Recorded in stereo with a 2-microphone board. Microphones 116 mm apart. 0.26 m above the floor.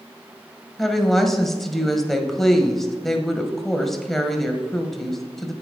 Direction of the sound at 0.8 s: 5° left (ahead or behind).